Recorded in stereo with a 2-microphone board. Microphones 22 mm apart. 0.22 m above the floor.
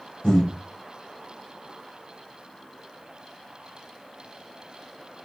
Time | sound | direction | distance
0.2 | breathing | 60° left (ahead or behind) | 1.5 m